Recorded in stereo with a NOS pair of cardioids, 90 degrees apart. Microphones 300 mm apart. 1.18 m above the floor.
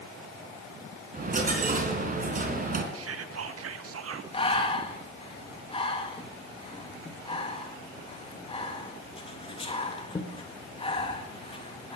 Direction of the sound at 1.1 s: 30° right.